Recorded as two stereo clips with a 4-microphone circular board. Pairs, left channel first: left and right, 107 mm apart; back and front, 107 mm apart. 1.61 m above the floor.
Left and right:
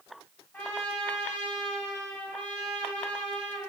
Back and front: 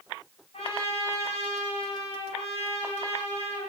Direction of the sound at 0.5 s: 165° left.